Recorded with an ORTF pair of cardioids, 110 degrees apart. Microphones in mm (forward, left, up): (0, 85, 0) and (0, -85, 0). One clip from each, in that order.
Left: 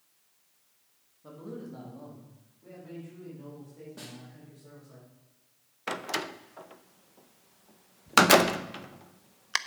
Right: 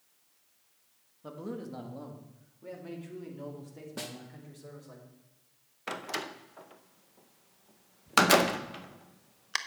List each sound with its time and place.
1.2 s a man speaking: 35° right, 1.9 m; by 5.0 s 65° right, 4.5 m
4.0 s a snare drum: 50° right, 1.3 m
5.9 s a door slam: 15° left, 0.6 m